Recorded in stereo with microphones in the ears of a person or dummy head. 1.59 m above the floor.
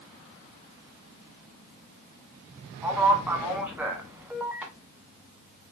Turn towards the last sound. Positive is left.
turn(degrees=-10)  # may be behind; listen again after turning